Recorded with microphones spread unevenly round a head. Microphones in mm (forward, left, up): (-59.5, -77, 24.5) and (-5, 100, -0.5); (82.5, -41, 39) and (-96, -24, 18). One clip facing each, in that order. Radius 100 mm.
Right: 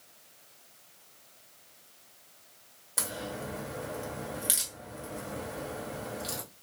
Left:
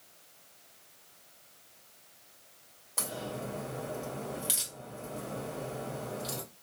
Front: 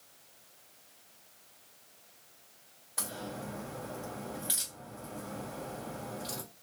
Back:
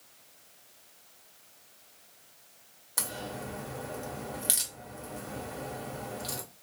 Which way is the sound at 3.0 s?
170° right.